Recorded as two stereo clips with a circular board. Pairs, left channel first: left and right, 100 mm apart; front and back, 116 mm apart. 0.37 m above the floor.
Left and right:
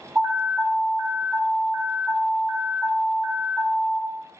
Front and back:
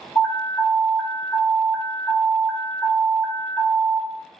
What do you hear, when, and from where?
0.1 s an alarm: 45° right, 2 m